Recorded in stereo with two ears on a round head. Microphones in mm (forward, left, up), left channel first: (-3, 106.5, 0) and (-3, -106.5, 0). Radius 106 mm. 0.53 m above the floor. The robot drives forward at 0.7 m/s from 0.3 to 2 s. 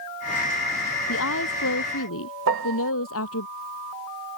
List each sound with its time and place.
1.1 s a woman speaking: 60° left (ahead or behind)
2.5 s a piano: 55° right (ahead or behind)